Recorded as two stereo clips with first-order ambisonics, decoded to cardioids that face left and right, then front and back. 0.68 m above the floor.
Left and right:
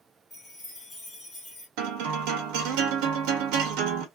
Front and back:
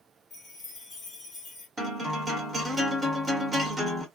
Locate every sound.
0.3 s a chime: 30° left, 1.1 m
1.8 s a guitar: 100° right, 0.9 m